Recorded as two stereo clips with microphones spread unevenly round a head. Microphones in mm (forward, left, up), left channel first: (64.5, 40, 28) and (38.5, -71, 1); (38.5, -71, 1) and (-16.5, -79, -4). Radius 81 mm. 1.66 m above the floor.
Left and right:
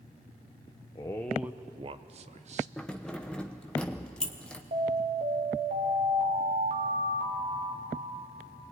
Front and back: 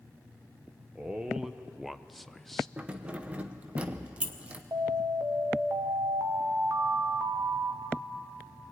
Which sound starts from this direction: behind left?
Keys jangling, at 2.8 s.